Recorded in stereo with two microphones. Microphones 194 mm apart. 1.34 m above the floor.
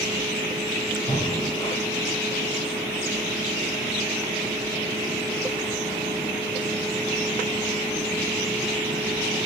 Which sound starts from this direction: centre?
Breathing, at 1.1 s.